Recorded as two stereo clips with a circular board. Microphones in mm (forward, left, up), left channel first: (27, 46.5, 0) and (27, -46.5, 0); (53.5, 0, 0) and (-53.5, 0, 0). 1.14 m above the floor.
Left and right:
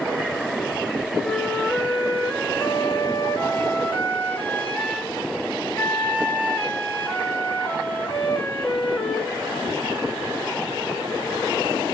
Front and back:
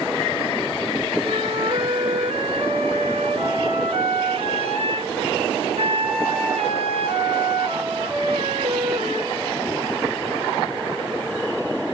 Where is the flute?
165° left, 2.5 m.